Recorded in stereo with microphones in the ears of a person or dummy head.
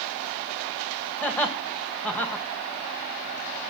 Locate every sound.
1.2 s laughter: 5° left (ahead or behind), 1.8 m